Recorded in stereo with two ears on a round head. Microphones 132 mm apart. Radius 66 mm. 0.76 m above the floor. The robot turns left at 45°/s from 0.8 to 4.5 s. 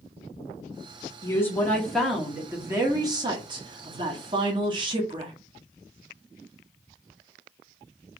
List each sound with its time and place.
1.2 s a woman speaking: 35° left, 1.1 m; by 5.3 s 110° right, 1.1 m